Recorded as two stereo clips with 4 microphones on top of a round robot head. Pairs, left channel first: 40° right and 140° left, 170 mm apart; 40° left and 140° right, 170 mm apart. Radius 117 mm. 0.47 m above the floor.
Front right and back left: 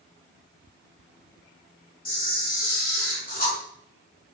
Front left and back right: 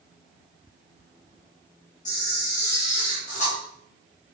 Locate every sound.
2.0 s a camera shutter: 5° right, 6.5 m